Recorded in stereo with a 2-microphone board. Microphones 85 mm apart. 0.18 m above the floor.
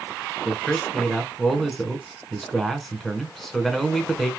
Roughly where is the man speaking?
Centre.